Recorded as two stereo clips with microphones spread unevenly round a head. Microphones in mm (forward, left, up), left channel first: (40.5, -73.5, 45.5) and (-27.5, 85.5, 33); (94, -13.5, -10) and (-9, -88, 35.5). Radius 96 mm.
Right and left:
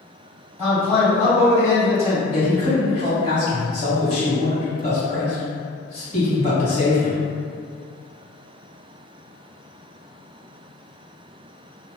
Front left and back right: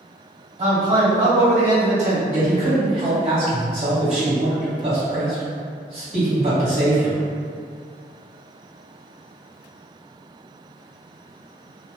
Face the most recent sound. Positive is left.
turn(degrees=-115)